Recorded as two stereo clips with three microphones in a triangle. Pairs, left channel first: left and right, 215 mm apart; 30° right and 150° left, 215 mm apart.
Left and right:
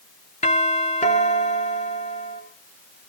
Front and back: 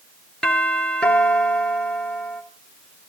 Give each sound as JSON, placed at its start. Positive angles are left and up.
{"t": 0.4, "sound": "a doorbell", "azimuth_deg": 55, "distance_m": 2.5}